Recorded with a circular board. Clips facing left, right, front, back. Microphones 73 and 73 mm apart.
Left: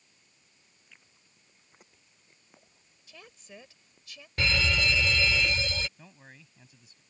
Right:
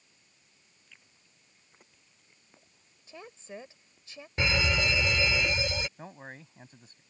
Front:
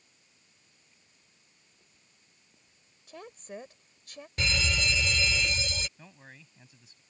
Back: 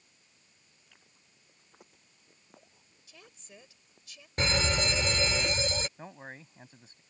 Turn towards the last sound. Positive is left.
turn(degrees=-130)